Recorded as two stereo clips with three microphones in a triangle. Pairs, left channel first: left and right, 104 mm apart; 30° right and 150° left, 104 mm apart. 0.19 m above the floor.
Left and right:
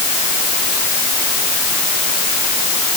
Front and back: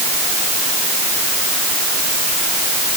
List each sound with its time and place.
Only background noise.